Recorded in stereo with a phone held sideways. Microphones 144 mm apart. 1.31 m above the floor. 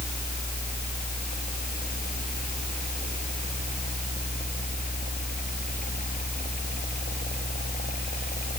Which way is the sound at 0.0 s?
85° left.